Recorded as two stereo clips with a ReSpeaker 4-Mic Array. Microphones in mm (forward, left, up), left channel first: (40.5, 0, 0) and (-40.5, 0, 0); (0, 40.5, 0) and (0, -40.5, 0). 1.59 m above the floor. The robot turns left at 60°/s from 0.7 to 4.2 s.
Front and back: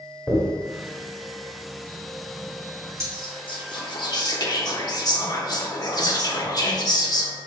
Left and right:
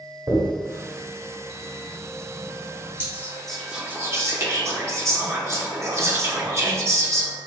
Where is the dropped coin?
70° right, 1.7 m; by 3.0 s 150° left, 1.7 m.